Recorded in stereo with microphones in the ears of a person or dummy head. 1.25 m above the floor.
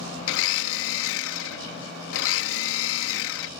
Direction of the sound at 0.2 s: 75° left (ahead or behind).